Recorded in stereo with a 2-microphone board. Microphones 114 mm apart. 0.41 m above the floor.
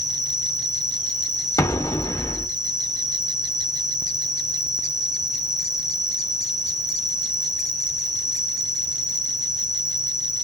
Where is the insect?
40° right (ahead or behind), 1.0 m.